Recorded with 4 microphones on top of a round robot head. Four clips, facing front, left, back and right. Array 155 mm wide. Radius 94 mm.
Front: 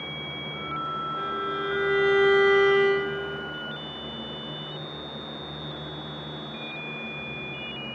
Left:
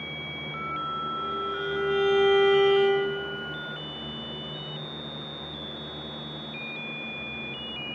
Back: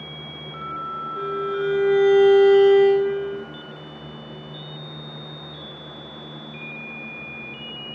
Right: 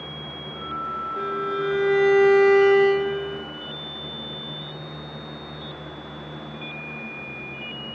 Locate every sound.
1.2 s a violin: 135° right, 3.5 m